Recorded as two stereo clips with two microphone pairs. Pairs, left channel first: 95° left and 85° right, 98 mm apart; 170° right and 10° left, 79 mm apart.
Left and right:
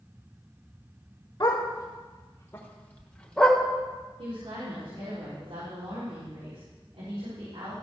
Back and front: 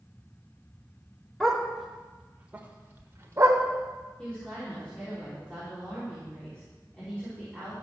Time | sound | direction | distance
1.4 | a dog barking | 105° left | 1.7 m
4.2 | a woman speaking | 95° right | 4 m